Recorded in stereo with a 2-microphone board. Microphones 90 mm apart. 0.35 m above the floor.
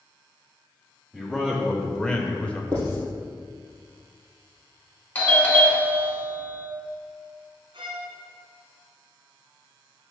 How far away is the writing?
About 2.5 m.